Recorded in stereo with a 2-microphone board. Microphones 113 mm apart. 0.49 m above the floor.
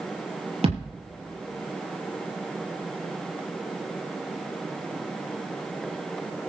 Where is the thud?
65° right (ahead or behind), 5 m.